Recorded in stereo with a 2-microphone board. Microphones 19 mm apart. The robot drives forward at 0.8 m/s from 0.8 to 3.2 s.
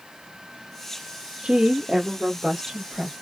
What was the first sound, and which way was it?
A woman speaking, 45° right (ahead or behind).